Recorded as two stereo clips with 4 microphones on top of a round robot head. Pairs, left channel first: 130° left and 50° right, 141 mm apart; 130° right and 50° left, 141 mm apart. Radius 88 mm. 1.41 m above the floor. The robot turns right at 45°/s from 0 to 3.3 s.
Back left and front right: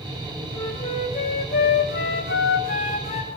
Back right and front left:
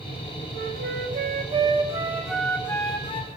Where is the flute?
60° left, 4.5 m; by 3.3 s straight behind, 4.5 m.